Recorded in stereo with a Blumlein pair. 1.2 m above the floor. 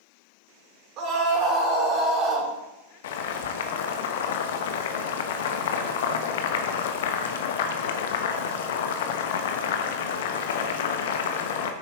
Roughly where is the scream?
Ahead right.